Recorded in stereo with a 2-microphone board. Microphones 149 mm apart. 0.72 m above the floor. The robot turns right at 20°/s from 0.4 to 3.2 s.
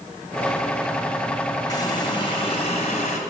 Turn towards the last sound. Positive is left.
turn(degrees=55)